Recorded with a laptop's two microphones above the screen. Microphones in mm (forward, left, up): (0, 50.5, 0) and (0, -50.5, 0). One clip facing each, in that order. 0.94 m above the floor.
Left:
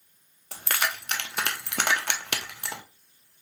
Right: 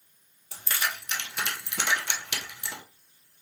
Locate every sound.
0.5 s keys jangling: 60° left (ahead or behind), 0.7 m